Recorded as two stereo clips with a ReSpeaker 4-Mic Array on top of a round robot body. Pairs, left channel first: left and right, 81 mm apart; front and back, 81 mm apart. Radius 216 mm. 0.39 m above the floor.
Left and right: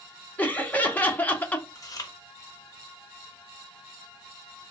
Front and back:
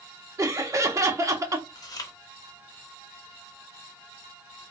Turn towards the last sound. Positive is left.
turn(degrees=45)